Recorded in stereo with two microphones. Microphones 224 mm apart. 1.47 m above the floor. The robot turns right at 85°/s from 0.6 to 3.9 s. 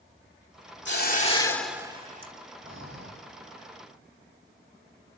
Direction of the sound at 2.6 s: 110° right.